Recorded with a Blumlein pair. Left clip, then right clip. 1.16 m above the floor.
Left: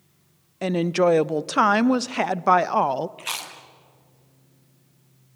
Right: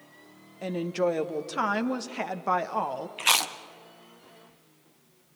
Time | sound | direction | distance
0.6 | a woman speaking | 65° left | 0.7 m
3.2 | chewing | 25° right | 1.3 m